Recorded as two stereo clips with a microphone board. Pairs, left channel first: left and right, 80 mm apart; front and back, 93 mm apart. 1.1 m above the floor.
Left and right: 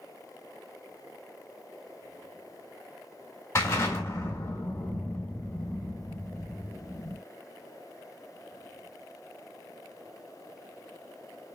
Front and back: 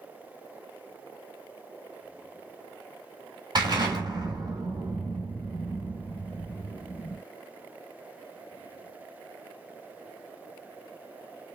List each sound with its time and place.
3.5 s an explosion: 140° left, 2 m